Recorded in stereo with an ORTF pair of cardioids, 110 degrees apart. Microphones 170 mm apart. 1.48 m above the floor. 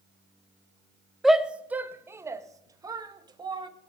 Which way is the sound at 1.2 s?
Straight ahead.